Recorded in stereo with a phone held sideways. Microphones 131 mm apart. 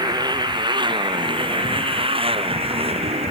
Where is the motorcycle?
30° right (ahead or behind); by 3.3 s 50° right (ahead or behind).